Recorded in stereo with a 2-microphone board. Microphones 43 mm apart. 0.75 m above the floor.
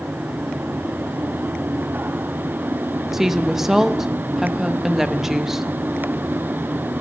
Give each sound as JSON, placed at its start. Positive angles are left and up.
{"t": 3.1, "sound": "a woman speaking", "side_deg": -10, "distance_m": 0.8}